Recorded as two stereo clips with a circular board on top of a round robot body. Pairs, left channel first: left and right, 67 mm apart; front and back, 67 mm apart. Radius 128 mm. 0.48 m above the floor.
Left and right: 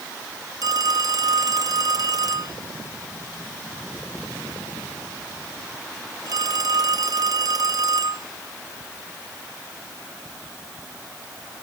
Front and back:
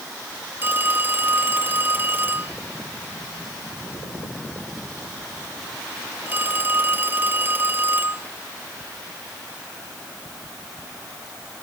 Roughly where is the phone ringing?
Behind right.